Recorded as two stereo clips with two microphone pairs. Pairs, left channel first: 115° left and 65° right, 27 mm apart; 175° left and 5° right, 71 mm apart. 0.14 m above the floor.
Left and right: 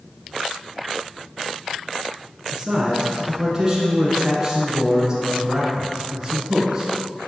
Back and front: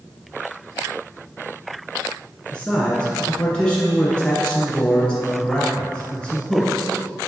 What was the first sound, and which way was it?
A man speaking, 115° right.